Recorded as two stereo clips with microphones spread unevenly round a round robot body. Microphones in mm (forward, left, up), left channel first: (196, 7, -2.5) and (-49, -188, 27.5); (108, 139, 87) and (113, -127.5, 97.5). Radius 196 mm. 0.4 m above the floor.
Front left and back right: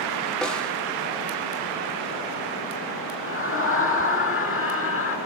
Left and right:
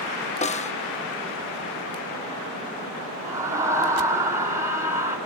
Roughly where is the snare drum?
Behind left.